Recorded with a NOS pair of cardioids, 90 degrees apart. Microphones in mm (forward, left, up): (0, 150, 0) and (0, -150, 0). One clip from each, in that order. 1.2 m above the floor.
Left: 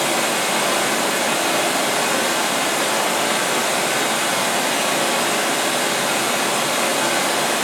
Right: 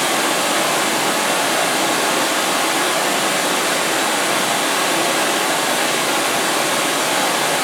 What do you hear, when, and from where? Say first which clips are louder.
0.0 s running water: right 2 dB; 50° right, 2 m